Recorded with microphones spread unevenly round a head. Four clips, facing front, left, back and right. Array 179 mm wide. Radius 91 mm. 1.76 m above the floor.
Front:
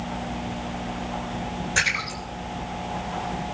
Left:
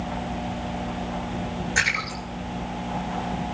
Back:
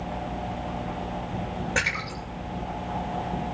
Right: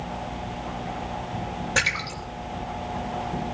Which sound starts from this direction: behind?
A splash, at 1.8 s.